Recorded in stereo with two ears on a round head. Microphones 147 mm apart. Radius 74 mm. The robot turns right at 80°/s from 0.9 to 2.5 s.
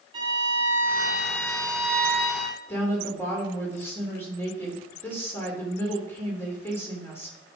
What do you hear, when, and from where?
0.1 s a violin: 30° right, 4 m; by 2.6 s 100° left, 4 m
2.7 s a woman speaking: 15° left (ahead or behind), 3 m